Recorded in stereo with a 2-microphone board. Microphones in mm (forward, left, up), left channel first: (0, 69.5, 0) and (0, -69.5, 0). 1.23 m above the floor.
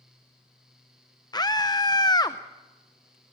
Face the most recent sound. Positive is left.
turn(degrees=30)  # may be behind; listen again after turning